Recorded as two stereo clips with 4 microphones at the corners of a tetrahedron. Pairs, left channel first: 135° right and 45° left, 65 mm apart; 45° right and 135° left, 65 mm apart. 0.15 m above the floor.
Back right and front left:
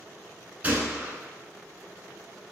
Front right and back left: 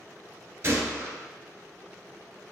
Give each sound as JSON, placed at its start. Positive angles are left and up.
{"t": 0.6, "sound": "a gunshot", "azimuth_deg": 105, "distance_m": 1.1}